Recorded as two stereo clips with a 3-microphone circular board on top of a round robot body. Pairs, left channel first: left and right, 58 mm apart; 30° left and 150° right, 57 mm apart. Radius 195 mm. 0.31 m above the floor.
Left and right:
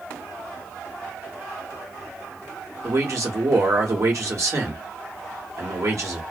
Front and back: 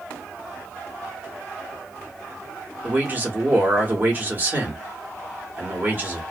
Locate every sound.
2.8 s a man speaking: 95° right, 1.7 m